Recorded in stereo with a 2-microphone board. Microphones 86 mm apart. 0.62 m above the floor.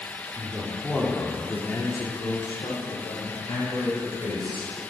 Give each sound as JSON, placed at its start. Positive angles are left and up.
{"t": 0.3, "sound": "a man speaking", "side_deg": -25, "distance_m": 1.7}